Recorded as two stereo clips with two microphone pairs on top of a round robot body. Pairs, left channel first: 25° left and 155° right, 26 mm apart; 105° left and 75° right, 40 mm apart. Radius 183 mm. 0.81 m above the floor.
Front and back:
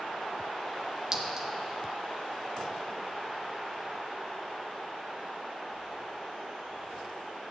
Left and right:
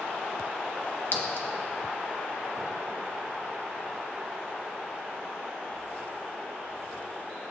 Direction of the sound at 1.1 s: 140° left.